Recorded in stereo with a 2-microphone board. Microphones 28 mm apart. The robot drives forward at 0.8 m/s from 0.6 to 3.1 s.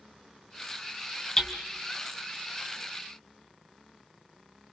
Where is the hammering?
25° left (ahead or behind), 2.5 m.